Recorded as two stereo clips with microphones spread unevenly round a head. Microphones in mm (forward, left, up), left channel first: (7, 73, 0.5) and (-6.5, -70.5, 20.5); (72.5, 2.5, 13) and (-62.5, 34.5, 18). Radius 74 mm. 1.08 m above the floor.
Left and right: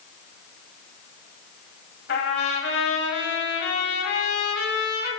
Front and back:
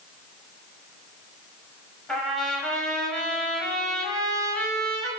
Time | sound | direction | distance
2.1 | a trumpet | 70° left | 5.5 m